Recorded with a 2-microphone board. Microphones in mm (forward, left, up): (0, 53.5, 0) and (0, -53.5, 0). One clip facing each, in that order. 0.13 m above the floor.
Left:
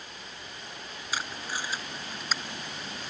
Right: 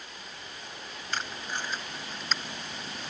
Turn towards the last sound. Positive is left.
turn(degrees=5)  # may be behind; listen again after turning